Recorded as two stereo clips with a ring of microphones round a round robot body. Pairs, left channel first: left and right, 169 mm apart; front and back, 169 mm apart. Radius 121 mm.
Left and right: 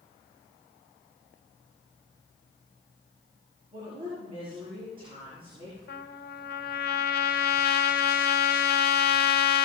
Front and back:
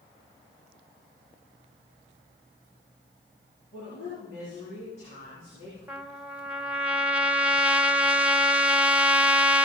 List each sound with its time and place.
3.7 s a woman speaking: 35° right, 7 m
5.9 s a trumpet: 100° left, 1.0 m